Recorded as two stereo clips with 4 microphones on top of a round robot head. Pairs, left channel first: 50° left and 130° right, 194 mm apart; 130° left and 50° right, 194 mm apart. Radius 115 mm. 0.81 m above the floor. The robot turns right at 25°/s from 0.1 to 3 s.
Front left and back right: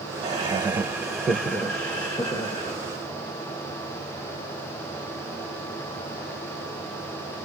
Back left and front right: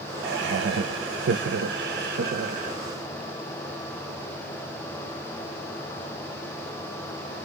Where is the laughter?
75° right, 0.8 m; by 2.8 s 10° right, 0.8 m.